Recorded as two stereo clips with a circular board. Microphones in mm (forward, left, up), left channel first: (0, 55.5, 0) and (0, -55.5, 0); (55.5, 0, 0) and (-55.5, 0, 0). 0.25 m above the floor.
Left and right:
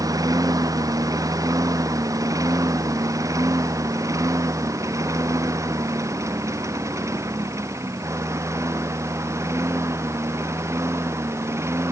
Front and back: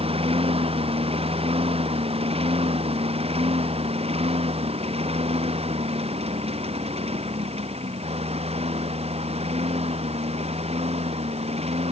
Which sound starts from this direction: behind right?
A lawn mower, at 0.0 s.